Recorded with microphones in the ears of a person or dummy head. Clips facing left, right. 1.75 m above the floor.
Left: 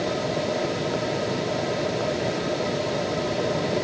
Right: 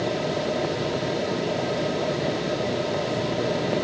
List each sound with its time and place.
Only background noise.